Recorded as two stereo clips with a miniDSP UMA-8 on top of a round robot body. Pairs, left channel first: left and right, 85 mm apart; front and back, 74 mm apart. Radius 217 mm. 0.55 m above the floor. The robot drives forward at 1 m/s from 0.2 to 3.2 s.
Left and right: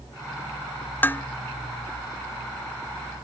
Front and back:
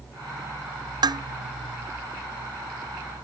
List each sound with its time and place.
1.0 s dishes clattering: 155° left; by 1.2 s 160° left